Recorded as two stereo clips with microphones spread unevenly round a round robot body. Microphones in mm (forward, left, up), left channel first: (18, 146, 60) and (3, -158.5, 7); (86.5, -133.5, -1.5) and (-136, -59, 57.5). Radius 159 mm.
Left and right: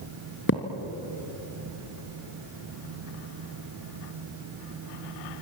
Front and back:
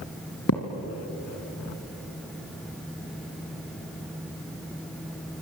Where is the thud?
35° left, 1.8 m.